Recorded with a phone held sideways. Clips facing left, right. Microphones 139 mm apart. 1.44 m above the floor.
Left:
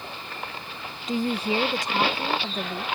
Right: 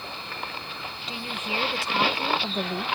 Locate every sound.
1.1 s a woman speaking: 45° left (ahead or behind); by 2.8 s 15° right (ahead or behind)